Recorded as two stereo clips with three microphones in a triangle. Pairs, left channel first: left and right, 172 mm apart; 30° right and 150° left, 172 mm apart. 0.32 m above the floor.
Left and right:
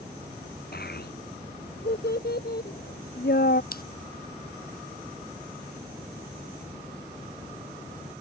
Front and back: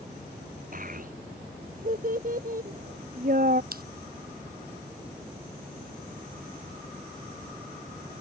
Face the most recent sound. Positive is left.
turn(degrees=120)